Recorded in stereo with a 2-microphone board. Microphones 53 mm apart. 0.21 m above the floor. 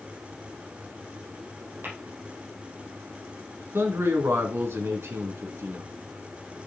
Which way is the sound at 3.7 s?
55° right (ahead or behind).